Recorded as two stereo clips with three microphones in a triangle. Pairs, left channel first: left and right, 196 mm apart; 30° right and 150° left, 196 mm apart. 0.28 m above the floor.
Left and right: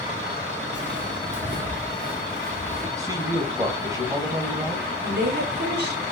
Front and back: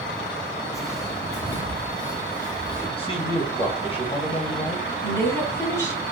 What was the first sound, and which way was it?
Footsteps, 105° right.